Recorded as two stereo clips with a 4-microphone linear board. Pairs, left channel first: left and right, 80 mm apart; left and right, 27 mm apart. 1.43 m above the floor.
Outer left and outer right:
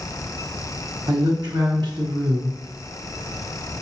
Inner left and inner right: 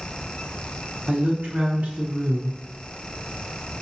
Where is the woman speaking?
75° right (ahead or behind), 1.1 m.